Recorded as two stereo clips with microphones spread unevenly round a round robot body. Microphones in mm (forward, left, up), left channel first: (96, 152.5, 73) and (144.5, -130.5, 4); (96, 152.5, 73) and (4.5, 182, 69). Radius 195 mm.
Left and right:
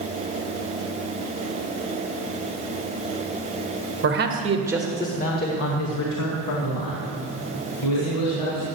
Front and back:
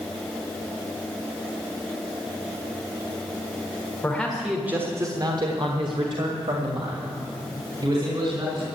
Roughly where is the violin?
I don't hear a violin.